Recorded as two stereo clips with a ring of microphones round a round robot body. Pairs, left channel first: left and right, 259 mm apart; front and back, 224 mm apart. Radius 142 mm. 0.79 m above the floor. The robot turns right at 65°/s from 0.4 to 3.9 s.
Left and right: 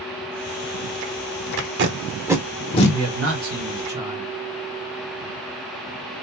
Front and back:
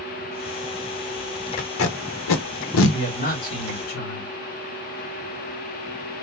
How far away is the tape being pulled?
About 0.8 m.